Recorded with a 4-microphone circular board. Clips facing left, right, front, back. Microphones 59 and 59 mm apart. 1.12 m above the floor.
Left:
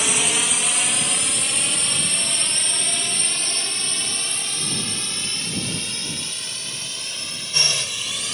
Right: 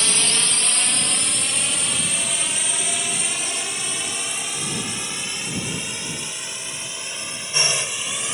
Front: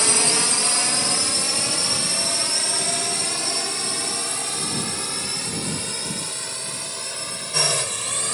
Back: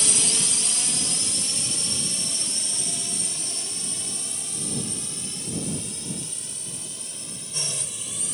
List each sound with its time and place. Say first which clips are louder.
0.0 s a drone: left 1 dB, front 7 dB; 15° left; by 8.3 s 20° right